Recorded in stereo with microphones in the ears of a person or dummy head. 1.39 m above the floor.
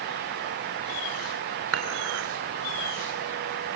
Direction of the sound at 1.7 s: 75° right (ahead or behind).